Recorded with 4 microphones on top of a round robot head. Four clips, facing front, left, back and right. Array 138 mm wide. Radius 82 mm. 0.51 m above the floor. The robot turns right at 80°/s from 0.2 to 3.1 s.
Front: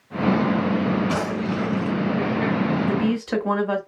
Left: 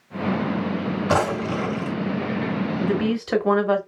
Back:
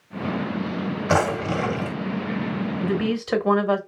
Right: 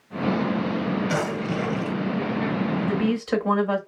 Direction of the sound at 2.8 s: 100° left.